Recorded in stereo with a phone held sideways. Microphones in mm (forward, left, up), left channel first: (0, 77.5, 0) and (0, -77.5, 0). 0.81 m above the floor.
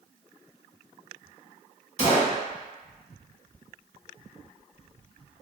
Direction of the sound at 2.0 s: 45° right (ahead or behind).